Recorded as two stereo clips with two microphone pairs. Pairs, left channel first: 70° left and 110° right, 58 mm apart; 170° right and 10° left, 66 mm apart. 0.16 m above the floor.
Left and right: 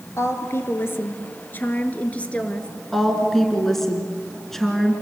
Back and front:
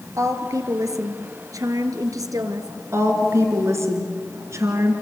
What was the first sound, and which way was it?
A woman speaking, 40° left.